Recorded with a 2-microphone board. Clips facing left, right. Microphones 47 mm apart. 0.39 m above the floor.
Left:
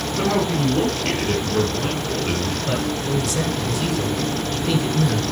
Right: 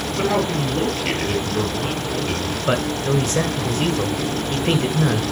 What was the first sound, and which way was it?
A man speaking, centre (ahead or behind).